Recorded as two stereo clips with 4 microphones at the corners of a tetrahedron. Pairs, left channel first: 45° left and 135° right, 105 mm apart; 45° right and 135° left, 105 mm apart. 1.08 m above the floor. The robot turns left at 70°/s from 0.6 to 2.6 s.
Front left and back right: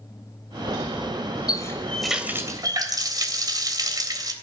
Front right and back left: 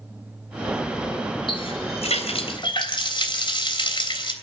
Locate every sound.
1.5 s a running tap: 5° right, 3 m; by 4.3 s 85° right, 3 m